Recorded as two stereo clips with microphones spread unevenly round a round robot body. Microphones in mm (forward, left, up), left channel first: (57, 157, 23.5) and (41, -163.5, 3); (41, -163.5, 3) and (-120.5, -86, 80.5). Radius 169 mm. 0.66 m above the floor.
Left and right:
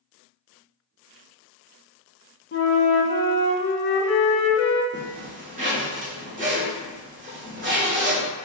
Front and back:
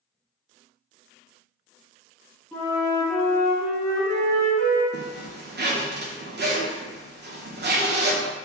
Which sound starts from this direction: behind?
A zipper, at 4.9 s.